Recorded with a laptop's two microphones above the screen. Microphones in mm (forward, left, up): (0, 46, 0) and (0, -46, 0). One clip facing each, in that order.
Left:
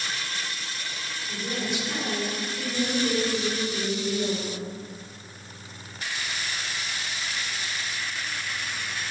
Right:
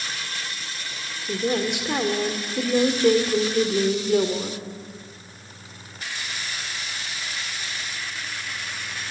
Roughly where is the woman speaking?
Right.